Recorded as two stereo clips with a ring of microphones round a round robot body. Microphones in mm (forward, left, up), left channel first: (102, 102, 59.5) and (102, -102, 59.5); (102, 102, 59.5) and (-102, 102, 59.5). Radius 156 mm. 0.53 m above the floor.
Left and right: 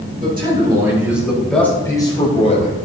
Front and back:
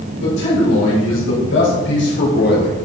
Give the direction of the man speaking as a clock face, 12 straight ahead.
1 o'clock.